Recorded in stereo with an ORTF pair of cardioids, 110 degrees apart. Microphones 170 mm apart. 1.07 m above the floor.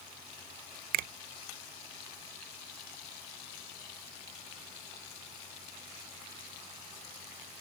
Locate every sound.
0.9 s a finger snap: 60° right